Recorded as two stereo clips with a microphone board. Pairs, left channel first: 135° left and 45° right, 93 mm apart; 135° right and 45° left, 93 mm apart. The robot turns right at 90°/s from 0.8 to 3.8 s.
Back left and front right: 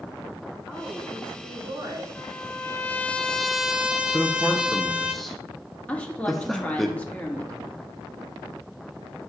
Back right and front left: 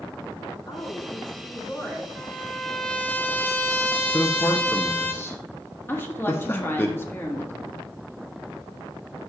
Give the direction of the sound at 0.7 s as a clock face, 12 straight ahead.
4 o'clock.